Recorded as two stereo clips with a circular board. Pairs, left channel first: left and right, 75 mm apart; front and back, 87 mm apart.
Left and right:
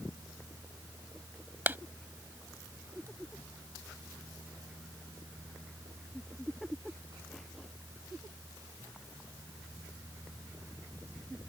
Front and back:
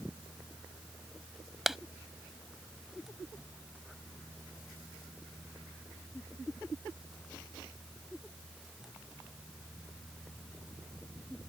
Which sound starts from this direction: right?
A clap, at 1.7 s.